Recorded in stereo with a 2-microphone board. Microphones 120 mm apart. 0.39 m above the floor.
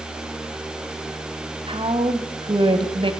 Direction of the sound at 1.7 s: 45° right (ahead or behind).